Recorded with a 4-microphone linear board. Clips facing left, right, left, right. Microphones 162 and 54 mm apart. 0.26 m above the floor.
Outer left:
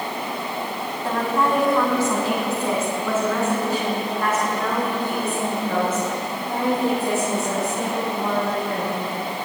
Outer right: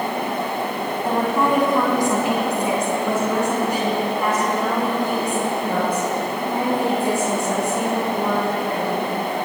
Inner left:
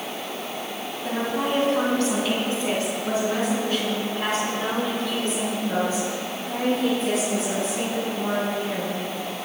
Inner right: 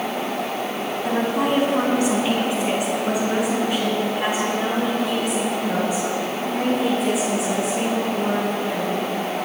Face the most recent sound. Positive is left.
turn(degrees=-15)  # may be behind; listen again after turning